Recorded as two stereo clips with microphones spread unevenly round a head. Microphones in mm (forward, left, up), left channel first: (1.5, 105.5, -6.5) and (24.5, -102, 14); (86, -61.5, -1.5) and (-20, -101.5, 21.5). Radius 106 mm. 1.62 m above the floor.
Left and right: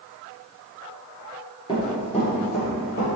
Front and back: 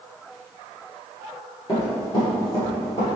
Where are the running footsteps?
55° left, 1.6 m; by 3.2 s 70° left, 2 m.